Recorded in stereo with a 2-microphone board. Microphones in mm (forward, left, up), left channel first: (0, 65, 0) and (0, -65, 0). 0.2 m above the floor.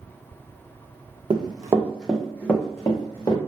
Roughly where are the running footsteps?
Right.